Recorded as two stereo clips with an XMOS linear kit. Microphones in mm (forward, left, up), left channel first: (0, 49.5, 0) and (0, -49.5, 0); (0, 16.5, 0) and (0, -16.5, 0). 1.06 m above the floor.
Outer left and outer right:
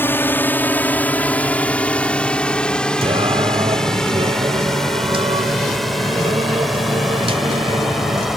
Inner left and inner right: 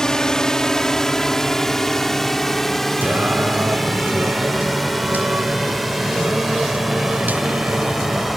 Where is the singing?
70° right (ahead or behind).